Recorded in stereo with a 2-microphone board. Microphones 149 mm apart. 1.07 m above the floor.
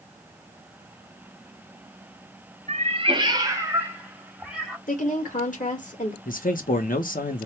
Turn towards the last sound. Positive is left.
turn(degrees=70)  # may be behind; listen again after turning